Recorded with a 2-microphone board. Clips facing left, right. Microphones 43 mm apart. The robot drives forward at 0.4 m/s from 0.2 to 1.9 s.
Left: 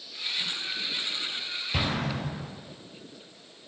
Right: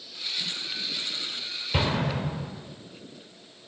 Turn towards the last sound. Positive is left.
turn(degrees=-15)  # may be behind; listen again after turning